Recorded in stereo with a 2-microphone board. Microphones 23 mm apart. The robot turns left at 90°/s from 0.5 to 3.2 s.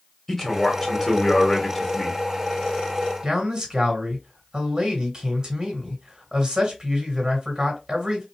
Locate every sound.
0.3 s a man speaking: centre (ahead or behind), 1.4 m; by 2.2 s 10° left (ahead or behind), 1.4 m
3.2 s a man speaking: 35° right (ahead or behind), 1.9 m